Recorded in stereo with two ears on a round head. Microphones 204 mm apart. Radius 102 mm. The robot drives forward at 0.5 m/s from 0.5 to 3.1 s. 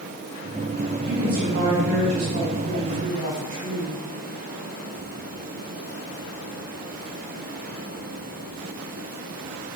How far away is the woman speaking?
About 3.5 m.